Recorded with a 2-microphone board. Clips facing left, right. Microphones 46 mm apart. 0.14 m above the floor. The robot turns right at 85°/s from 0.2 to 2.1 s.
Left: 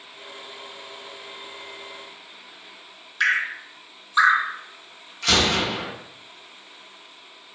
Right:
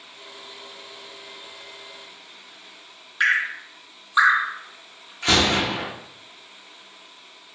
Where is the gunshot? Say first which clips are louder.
Right 1 dB; 30° right (ahead or behind), 1.0 m.